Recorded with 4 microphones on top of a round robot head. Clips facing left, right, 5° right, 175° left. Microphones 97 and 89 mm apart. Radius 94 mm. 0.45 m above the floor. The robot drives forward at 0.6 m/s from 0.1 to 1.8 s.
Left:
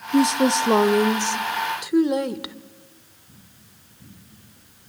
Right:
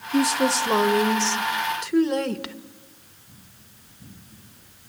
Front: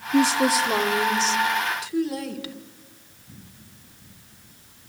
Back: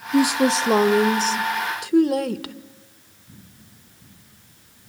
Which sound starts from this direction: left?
A woman speaking, at 0.1 s.